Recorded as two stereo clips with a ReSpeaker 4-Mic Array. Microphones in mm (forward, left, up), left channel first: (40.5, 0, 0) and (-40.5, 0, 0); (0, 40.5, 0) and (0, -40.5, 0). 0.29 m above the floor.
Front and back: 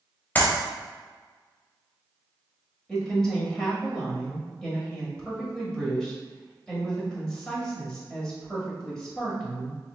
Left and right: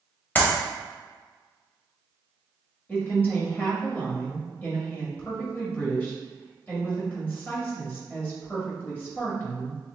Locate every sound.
0.3 s a clap: 45° left, 1.1 m
2.9 s a woman speaking: 70° left, 1.5 m